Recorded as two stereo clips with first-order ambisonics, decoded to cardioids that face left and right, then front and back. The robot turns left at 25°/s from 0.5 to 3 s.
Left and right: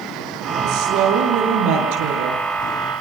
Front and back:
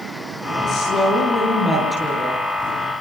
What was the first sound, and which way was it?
A woman speaking, 50° right.